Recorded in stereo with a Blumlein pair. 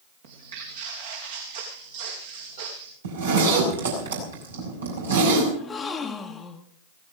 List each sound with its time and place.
0.2 s footsteps: 55° right, 4.5 m
3.0 s a zipper: 70° right, 6 m
5.5 s a gasp: 15° left, 1.4 m